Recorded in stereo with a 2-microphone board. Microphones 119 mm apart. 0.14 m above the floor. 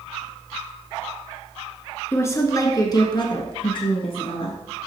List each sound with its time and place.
2.1 s a woman speaking: 20° left (ahead or behind), 1.4 m; by 4.6 s 50° left (ahead or behind), 1.7 m